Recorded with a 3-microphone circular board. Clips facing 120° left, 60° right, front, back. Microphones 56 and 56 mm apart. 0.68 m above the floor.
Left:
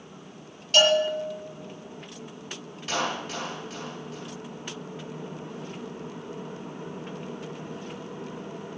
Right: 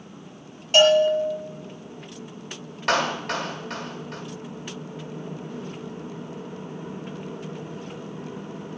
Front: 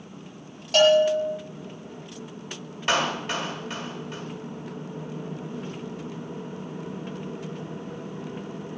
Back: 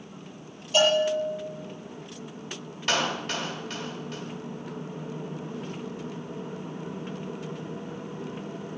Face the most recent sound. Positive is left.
turn(degrees=-65)